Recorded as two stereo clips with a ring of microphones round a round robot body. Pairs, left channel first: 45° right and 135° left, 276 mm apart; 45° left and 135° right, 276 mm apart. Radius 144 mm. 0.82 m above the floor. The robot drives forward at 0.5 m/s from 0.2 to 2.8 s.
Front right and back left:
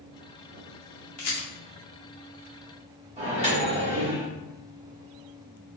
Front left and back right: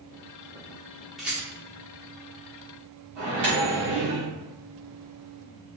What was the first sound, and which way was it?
A rattle, 45° right.